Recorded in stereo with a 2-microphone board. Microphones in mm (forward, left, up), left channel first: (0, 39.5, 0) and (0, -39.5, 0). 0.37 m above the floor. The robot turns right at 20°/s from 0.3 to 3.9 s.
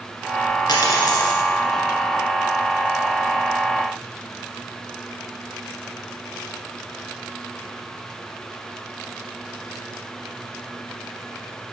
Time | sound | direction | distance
0.7 | a dropped coin | 65° left (ahead or behind) | 1.8 m